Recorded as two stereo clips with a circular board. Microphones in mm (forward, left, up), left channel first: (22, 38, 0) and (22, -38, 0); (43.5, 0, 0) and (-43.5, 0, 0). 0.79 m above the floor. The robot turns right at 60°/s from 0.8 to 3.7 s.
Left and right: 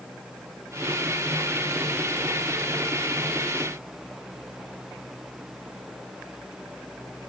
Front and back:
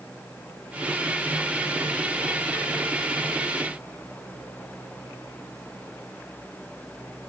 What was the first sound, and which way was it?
Only background noise.